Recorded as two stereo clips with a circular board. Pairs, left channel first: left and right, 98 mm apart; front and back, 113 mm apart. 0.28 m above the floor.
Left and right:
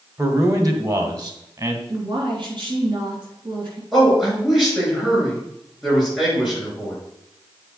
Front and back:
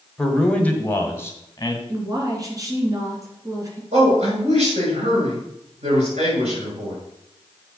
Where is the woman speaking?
125° right, 3 m.